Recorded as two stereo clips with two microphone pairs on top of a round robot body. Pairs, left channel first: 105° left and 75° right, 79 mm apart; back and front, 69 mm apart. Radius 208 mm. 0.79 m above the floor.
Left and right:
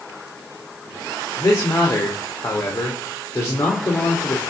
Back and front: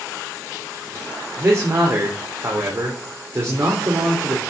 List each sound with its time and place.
1.4 s a man speaking: 55° left, 3 m